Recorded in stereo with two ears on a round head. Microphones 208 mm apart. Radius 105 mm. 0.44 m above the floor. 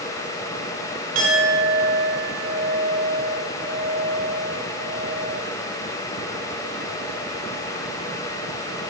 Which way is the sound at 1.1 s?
60° right (ahead or behind).